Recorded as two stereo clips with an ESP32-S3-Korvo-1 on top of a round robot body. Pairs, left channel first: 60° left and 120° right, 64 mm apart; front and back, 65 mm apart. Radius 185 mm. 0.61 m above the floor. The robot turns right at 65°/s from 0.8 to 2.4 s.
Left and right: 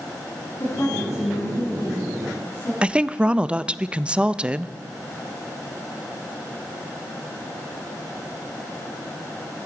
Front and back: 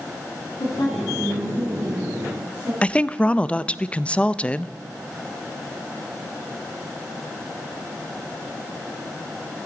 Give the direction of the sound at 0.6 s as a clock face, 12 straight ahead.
12 o'clock.